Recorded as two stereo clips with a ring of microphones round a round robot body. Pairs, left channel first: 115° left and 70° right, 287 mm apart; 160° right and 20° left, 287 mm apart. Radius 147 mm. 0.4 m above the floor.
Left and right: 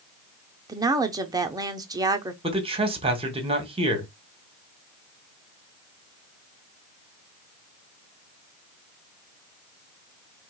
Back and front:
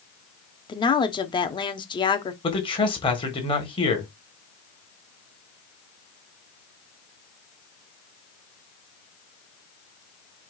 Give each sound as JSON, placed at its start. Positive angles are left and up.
{"t": 0.7, "sound": "a woman speaking", "azimuth_deg": -120, "distance_m": 0.8}
{"t": 2.4, "sound": "a man speaking", "azimuth_deg": -110, "distance_m": 1.5}